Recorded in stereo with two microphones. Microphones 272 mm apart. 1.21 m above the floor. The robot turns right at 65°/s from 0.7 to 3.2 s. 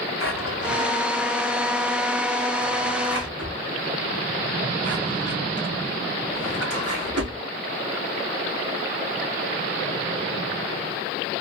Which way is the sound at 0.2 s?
50° left (ahead or behind).